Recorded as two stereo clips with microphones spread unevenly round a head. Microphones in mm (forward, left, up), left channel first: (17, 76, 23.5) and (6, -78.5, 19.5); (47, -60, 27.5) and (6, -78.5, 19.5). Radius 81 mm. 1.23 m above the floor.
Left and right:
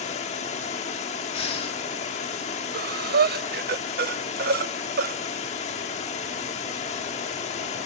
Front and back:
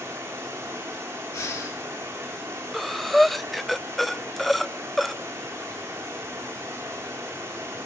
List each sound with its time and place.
0.0 s running water: 135° left, 1.6 m
1.3 s breathing: 30° left, 2 m
2.7 s breathing: 65° right, 0.6 m